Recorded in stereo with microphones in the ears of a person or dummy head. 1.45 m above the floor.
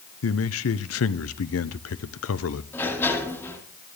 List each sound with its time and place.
0.2 s a man speaking: 75° left (ahead or behind), 0.8 m
2.7 s a sliding door: 10° left (ahead or behind), 4 m